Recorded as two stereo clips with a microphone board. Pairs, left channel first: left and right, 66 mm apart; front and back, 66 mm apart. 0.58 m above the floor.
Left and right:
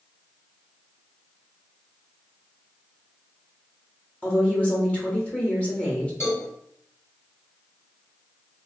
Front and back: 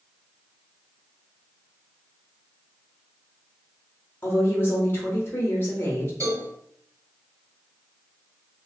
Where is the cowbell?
140° left, 1.6 m.